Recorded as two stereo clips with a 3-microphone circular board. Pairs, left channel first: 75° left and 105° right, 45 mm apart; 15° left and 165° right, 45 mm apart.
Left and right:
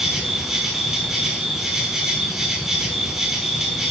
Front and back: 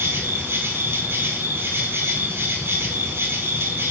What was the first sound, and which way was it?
An insect, 175° left.